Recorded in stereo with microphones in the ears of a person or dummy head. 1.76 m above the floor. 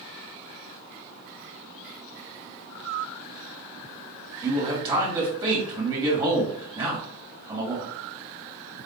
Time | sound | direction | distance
4.4 | a man speaking | 25° right (ahead or behind) | 2.5 m